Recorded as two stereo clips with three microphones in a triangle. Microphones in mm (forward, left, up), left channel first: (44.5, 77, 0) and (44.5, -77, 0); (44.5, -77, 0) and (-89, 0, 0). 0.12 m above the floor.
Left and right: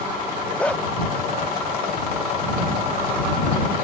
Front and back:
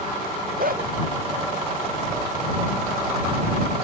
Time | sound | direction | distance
0.6 | a dog barking | 170° left | ?